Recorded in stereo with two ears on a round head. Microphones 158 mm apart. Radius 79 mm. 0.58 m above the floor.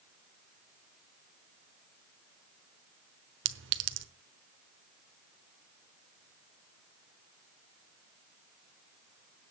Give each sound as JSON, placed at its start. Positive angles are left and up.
{"t": 3.5, "sound": "a clink", "side_deg": -75, "distance_m": 1.0}